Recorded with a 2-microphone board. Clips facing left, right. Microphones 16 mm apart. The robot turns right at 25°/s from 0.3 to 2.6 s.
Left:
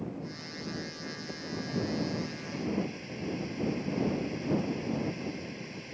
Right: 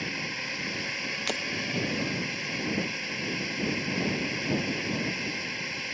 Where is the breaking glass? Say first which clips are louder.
Right 11 dB; 80° right.